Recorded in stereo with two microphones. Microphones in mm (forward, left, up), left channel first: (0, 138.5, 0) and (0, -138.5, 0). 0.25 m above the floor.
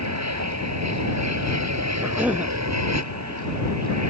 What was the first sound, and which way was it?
An aircraft, 75° right (ahead or behind).